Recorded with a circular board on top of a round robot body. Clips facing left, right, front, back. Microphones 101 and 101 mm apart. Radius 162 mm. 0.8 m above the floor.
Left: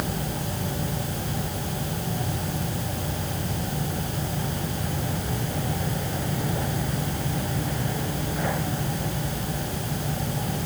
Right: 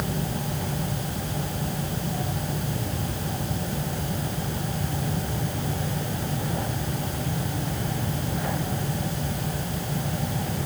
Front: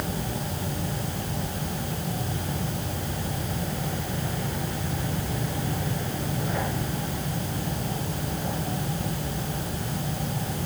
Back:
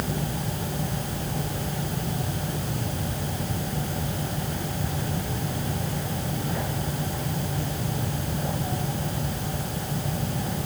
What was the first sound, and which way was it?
Only background noise.